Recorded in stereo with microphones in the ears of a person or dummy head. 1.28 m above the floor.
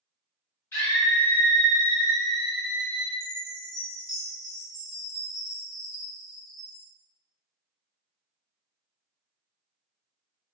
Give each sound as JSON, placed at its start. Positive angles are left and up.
{"t": 0.7, "sound": "a scream", "side_deg": 15, "distance_m": 0.8}
{"t": 3.2, "sound": "a chime", "side_deg": -5, "distance_m": 1.2}